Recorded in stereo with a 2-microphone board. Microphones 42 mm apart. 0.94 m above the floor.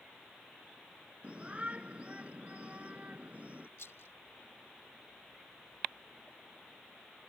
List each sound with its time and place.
1.2 s a shout: 30° right (ahead or behind); by 3.7 s 35° right (ahead or behind)
3.8 s a rattle: 85° left